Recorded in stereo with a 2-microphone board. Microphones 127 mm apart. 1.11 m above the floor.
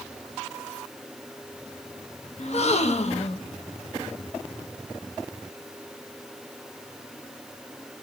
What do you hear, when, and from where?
2.4 s a gasp: 60° left (ahead or behind), 0.7 m